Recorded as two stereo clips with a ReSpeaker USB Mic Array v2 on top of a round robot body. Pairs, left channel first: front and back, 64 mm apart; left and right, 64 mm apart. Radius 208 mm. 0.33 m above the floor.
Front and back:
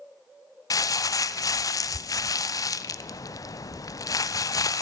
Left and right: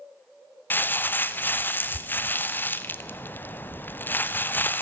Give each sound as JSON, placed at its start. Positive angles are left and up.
{"t": 0.7, "sound": "crumpling", "azimuth_deg": 30, "distance_m": 0.7}